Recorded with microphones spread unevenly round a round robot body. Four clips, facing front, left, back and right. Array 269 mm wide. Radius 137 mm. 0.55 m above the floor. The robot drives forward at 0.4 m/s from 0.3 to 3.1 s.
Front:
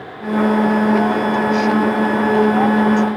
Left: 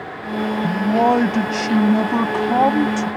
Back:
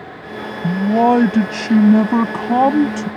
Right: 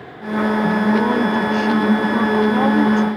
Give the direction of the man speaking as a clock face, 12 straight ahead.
6 o'clock.